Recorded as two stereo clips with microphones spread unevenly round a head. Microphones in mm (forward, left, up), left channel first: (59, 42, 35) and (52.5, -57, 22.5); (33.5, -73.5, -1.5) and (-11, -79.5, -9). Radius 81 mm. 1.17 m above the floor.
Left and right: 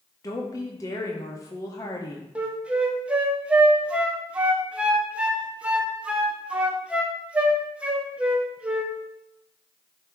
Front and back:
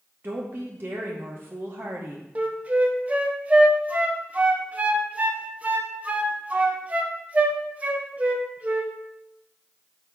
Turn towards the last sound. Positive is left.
turn(degrees=-160)